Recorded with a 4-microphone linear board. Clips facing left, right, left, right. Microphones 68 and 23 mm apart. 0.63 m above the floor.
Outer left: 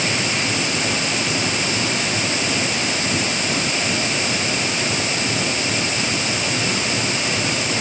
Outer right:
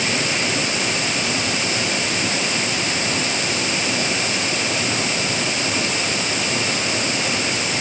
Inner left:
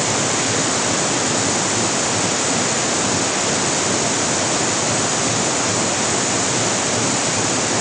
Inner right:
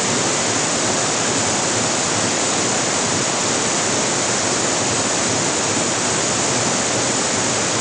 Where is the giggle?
No giggle in this recording.